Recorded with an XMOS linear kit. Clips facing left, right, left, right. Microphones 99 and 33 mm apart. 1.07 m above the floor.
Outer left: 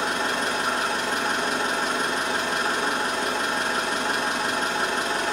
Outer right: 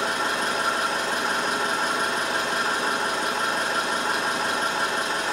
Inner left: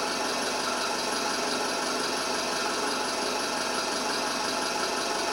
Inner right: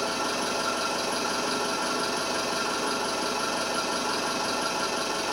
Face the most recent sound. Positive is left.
turn(degrees=-5)  # may be behind; listen again after turning